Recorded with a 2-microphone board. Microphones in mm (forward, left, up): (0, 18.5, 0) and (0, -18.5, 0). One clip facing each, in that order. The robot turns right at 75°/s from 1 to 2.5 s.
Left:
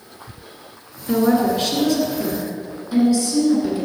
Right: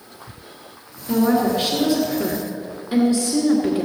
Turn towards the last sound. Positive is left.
turn(degrees=-40)  # may be behind; listen again after turning